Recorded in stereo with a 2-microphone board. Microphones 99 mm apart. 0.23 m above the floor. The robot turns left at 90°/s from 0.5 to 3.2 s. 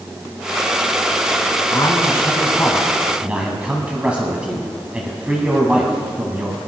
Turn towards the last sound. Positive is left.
turn(degrees=-15)